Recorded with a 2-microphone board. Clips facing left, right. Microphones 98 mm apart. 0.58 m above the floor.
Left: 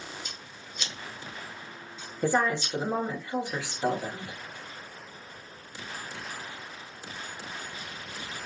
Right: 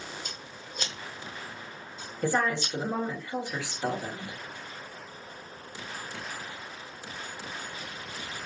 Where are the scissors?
50° right (ahead or behind), 0.6 m.